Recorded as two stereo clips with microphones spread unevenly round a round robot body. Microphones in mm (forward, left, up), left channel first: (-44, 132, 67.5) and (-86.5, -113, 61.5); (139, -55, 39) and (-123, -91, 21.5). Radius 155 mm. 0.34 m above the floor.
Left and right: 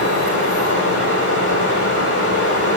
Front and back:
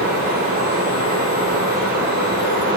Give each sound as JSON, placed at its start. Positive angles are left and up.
{"t": 0.0, "sound": "running water", "azimuth_deg": 120, "distance_m": 3.0}